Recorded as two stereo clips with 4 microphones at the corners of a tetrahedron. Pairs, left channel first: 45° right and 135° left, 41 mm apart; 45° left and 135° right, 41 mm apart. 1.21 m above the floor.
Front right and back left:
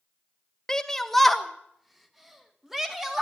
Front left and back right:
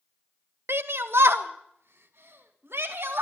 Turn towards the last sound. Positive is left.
turn(degrees=-145)